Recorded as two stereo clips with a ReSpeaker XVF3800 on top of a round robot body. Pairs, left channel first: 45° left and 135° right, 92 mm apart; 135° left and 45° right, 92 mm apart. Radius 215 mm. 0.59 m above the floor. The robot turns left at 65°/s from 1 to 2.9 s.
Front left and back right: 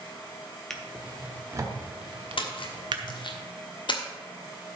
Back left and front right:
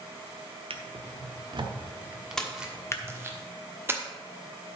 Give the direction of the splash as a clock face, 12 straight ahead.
10 o'clock.